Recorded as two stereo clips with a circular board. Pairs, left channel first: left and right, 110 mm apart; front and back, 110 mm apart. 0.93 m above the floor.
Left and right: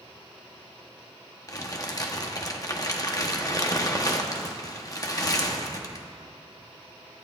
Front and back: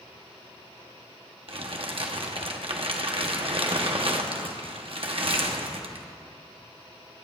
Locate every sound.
1.5 s crumpling: 145° left, 1.0 m